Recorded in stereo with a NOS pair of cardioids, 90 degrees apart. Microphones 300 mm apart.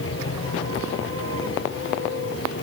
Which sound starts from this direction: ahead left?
A machine running, at 0.0 s.